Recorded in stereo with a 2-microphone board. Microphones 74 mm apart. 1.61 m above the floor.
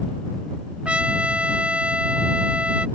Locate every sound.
0.8 s a trumpet: 15° right (ahead or behind)